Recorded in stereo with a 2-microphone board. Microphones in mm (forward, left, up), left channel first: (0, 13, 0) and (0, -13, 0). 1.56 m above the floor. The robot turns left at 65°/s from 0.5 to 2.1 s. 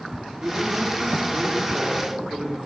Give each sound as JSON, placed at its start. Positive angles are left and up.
{"t": 0.4, "sound": "a man speaking", "azimuth_deg": -50, "distance_m": 5.0}